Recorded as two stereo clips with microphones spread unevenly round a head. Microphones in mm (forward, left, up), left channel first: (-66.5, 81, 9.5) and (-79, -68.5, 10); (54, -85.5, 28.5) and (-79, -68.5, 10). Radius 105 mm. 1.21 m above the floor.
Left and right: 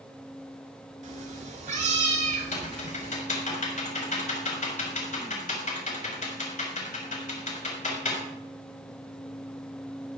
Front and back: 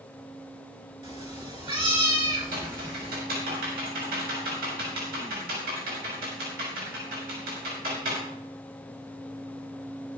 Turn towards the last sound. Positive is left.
turn(degrees=125)